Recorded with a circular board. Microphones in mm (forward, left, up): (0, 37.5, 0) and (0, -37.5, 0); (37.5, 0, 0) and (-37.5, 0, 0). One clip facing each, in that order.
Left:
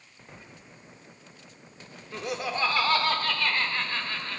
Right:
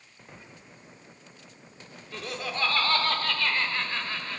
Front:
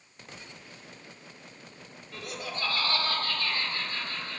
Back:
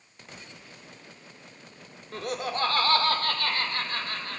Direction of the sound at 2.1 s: 155° left.